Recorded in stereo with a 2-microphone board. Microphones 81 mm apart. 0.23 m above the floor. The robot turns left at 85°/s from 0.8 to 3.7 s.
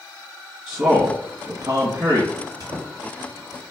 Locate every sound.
0.7 s a man speaking: 5° right, 1.4 m; by 2.3 s 125° right, 1.4 m
2.4 s a squeak: 45° right (ahead or behind), 1.6 m; by 2.9 s 55° right (ahead or behind), 1.6 m